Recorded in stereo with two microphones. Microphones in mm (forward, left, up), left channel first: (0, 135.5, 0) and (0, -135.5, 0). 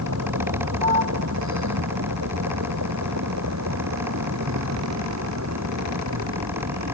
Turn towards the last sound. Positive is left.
turn(degrees=-80)